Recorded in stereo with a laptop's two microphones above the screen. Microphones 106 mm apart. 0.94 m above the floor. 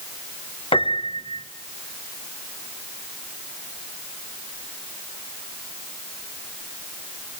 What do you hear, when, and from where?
0.7 s a piano: 60° left (ahead or behind), 1.0 m